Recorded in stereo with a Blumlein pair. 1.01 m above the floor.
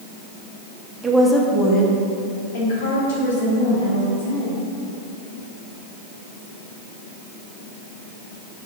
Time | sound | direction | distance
1.0 | a woman speaking | 15° right | 1.2 m